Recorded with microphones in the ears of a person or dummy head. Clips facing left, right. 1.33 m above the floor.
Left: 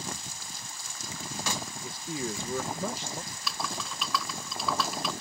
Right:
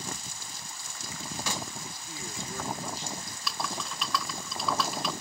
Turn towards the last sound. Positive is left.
turn(degrees=-5)  # may be behind; listen again after turning